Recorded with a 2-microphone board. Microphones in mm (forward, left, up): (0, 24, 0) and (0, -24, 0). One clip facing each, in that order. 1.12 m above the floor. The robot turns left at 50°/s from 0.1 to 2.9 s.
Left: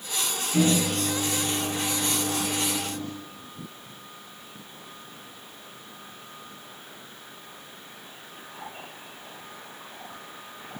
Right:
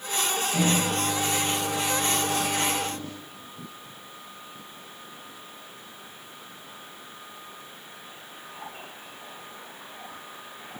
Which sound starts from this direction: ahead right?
A microwave, at 0.5 s.